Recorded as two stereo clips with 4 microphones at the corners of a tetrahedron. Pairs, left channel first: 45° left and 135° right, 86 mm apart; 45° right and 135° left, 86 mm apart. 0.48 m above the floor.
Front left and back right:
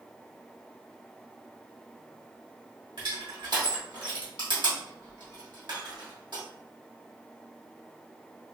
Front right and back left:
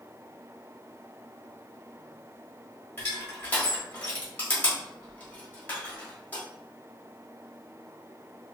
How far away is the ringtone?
No ringtone in this recording.